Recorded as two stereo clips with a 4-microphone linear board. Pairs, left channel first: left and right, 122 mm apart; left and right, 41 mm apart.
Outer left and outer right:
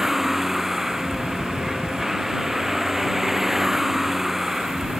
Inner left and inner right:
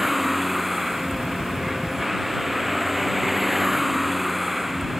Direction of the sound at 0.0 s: Centre (ahead or behind).